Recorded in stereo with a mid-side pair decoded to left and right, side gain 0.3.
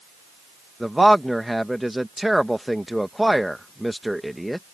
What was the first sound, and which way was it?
A man speaking, straight ahead.